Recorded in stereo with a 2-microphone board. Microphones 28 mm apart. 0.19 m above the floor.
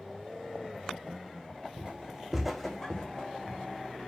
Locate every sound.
1.8 s footsteps: 40° right (ahead or behind), 0.6 m; by 4.1 s 50° left (ahead or behind), 1.0 m